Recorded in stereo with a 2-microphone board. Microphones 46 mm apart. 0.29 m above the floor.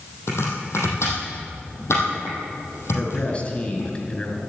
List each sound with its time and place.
0.3 s chopping: 70° left (ahead or behind), 4.5 m
2.9 s a man speaking: 25° left (ahead or behind), 4 m